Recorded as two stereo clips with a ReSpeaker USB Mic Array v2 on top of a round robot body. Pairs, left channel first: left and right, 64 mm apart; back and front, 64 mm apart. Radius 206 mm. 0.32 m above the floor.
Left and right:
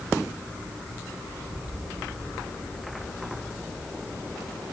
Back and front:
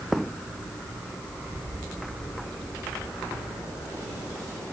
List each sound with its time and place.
Only background noise.